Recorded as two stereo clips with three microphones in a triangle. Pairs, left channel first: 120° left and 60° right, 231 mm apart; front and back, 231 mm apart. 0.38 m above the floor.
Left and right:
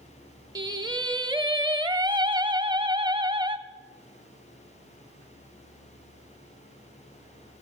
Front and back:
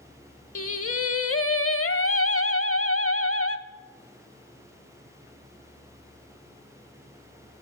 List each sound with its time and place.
0.6 s singing: 10° left, 0.7 m